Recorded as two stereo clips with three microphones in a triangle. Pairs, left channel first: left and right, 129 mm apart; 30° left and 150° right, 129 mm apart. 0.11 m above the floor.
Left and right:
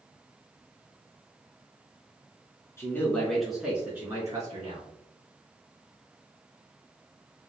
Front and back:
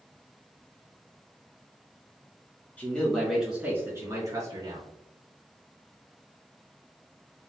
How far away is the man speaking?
About 1.2 m.